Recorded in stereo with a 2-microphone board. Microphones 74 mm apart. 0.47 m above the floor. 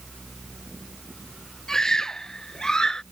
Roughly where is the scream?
Centre.